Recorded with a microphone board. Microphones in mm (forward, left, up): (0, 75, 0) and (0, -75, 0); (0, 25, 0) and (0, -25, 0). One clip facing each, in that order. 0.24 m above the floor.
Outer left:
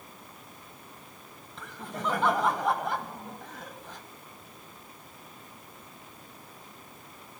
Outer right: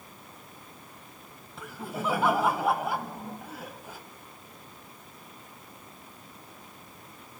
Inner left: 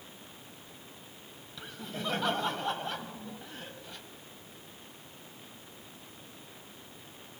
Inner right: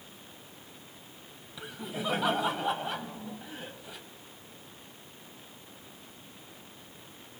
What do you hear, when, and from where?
1.6 s laughter: 10° right (ahead or behind), 1.3 m